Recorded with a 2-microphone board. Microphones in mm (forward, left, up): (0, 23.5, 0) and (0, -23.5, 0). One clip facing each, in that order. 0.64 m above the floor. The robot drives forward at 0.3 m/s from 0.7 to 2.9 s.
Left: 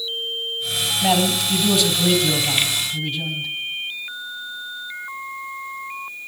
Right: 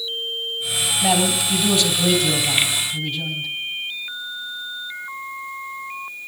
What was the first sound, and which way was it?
A man speaking, 5° right (ahead or behind).